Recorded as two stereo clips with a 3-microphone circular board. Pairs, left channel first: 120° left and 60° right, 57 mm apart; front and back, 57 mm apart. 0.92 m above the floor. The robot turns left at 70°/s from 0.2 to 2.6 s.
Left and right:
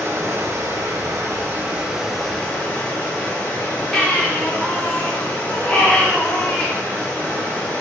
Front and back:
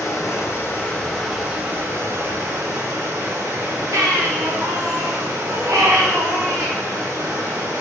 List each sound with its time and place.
0.0 s running water: 15° right, 1.5 m; by 7.8 s straight behind, 1.5 m
3.9 s a baby crying: 170° right, 1.1 m